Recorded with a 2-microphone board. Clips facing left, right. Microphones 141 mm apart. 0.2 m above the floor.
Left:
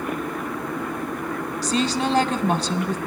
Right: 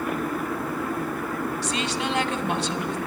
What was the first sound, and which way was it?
A woman speaking, 40° left (ahead or behind).